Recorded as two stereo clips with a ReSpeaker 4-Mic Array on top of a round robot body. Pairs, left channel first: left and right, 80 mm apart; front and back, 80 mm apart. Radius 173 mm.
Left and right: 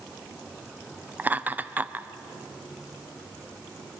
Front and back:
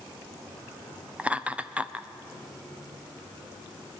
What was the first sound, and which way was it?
Laughter, 125° right.